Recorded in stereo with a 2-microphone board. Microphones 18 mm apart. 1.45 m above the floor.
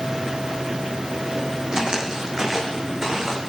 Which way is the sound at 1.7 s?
35° right (ahead or behind).